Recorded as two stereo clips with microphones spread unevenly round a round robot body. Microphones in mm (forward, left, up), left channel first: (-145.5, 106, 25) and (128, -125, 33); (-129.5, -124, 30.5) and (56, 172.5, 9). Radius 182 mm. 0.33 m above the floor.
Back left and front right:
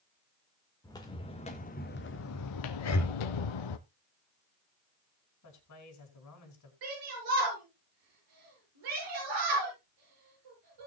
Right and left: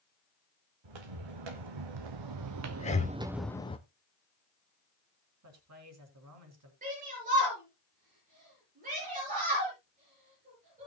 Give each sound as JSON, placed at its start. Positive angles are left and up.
{"t": 0.8, "sound": "footsteps", "azimuth_deg": 60, "distance_m": 2.0}
{"t": 2.8, "sound": "breathing", "azimuth_deg": 170, "distance_m": 1.6}
{"t": 5.4, "sound": "a man speaking", "azimuth_deg": 100, "distance_m": 4.0}
{"t": 6.8, "sound": "a shout", "azimuth_deg": -10, "distance_m": 6.5}